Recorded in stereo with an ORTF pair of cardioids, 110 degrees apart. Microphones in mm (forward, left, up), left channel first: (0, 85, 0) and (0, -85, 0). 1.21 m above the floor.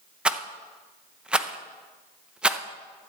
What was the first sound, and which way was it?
A rattle, 5° right.